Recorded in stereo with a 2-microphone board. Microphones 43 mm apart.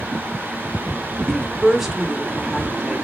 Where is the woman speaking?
Centre (ahead or behind), 1.1 m.